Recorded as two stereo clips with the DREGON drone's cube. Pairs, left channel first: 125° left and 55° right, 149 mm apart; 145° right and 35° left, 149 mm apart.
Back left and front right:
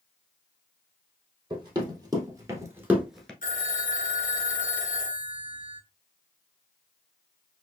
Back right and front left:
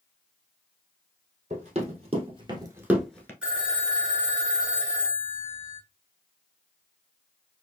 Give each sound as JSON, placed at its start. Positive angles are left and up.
{"t": 1.5, "sound": "running footsteps", "azimuth_deg": 0, "distance_m": 2.5}
{"t": 3.4, "sound": "a phone ringing", "azimuth_deg": 115, "distance_m": 1.5}